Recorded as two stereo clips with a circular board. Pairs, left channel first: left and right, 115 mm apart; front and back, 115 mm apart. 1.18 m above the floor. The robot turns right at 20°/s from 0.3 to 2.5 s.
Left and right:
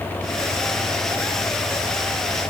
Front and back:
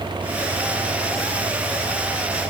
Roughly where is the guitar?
I don't hear a guitar.